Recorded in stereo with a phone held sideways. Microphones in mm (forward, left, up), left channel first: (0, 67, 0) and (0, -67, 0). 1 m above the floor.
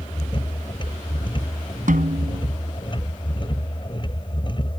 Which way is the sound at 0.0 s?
40° left (ahead or behind).